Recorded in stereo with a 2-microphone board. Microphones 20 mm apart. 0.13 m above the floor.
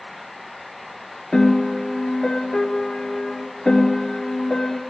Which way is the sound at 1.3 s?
40° left (ahead or behind).